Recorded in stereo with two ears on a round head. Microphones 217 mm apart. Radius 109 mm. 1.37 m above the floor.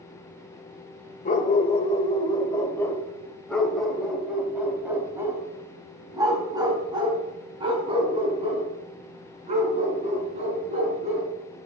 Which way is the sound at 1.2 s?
30° left (ahead or behind).